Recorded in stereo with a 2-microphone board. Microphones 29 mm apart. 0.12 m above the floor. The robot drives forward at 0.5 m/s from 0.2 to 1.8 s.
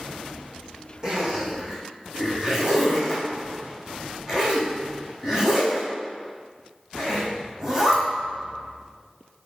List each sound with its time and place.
1.0 s a zipper: 25° right (ahead or behind), 2.0 m